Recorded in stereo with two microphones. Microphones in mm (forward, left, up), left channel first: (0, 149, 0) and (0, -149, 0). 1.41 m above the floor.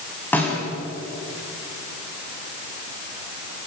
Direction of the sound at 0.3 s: 5° left (ahead or behind).